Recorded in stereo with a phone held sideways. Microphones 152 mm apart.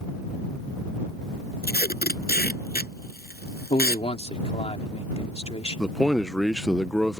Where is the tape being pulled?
80° left.